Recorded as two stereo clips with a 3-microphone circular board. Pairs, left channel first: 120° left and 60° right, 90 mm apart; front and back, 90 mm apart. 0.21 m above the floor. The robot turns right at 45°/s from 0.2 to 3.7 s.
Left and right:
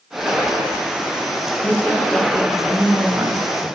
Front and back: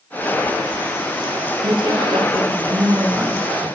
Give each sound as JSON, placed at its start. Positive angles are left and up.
{"t": 1.6, "sound": "a woman speaking", "azimuth_deg": 180, "distance_m": 2.5}